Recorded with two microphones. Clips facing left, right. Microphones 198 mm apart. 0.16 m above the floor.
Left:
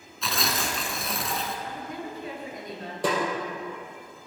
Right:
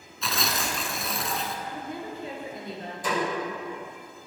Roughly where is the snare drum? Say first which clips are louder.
Left 3 dB; left.